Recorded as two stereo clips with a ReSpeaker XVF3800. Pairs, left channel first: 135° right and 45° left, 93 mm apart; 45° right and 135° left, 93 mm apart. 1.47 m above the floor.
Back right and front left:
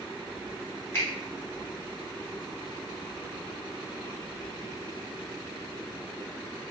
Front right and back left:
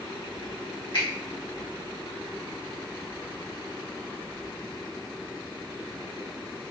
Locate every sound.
0.9 s a finger snap: 75° right, 1.8 m